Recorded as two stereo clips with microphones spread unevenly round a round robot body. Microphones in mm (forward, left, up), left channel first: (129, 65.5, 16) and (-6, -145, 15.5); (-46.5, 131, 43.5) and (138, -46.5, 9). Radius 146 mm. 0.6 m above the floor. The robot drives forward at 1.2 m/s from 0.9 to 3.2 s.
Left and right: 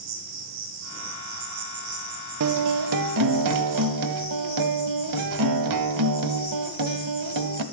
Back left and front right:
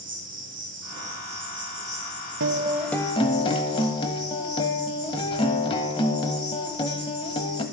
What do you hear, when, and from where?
0.0 s an insect: 110° right, 3.5 m; by 7.7 s 140° right, 5.5 m
2.4 s a guitar: 95° right, 0.6 m; by 7.6 s 150° right, 1.1 m